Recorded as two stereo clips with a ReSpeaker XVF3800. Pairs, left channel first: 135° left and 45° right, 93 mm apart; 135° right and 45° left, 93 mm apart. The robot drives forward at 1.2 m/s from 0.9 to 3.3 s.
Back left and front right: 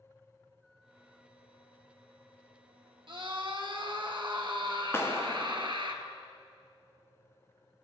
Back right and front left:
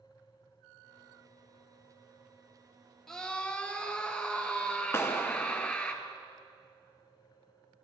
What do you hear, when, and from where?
3.1 s a scream: 50° right, 2 m; by 5.9 s 60° right, 2.0 m
4.9 s a clap: straight behind, 1.0 m